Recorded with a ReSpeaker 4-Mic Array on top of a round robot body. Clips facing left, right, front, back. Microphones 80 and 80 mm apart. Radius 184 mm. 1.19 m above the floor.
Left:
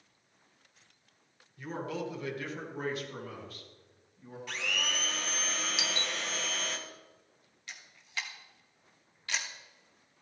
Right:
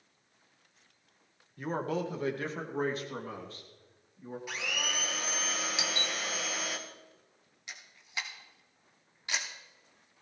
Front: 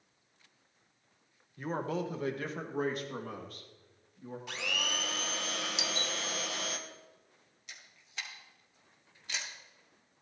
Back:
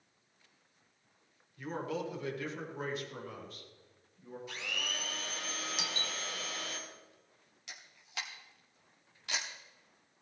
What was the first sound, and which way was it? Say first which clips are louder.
A man speaking: right 4 dB, front 3 dB; 50° right.